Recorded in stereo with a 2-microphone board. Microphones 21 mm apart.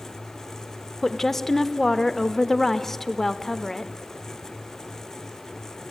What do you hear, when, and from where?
1.0 s a woman speaking: 20° left (ahead or behind), 0.8 m